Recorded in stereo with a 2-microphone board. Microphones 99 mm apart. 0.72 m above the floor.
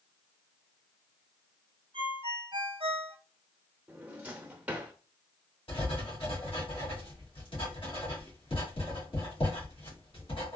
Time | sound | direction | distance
1.9 | a ringtone | 60° right (ahead or behind) | 1.0 m
3.9 | a drawer | 15° right (ahead or behind) | 0.8 m
5.7 | writing | 65° left (ahead or behind) | 2 m